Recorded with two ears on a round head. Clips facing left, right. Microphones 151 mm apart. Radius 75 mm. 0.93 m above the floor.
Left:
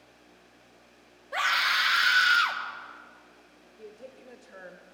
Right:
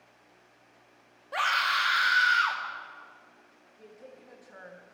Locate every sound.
1.3 s a scream: centre (ahead or behind), 1.5 m; by 2.6 s 45° left (ahead or behind), 1.7 m
3.8 s a woman speaking: 30° left (ahead or behind), 1.0 m